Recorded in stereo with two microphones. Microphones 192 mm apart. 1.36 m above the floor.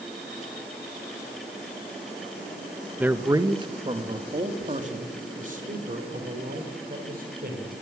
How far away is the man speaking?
About 1.4 m.